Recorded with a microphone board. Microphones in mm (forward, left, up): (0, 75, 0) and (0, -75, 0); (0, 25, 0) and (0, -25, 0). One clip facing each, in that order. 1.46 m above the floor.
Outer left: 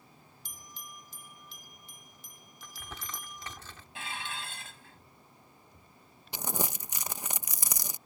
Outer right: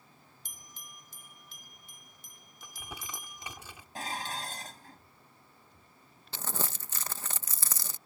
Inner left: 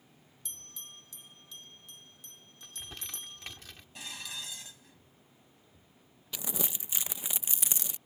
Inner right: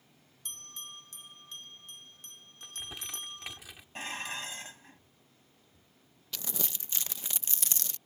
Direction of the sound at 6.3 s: 15° left (ahead or behind).